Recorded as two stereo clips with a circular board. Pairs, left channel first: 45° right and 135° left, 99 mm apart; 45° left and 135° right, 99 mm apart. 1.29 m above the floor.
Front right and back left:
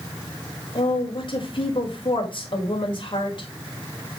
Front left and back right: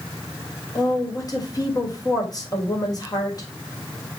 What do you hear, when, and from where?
0.8 s a woman speaking: 5° right, 4.5 m